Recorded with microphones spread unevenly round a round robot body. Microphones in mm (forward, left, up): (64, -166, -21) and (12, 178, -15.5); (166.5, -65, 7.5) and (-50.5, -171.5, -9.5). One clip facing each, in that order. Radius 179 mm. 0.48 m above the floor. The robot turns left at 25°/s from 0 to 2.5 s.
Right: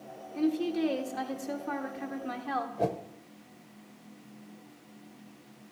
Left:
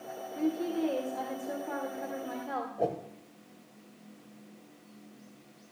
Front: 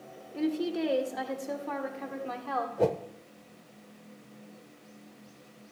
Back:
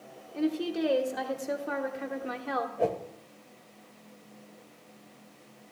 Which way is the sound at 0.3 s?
60° right.